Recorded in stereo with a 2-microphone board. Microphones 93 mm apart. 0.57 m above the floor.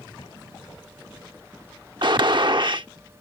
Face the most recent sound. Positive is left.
turn(degrees=-60)  # may be behind; listen again after turning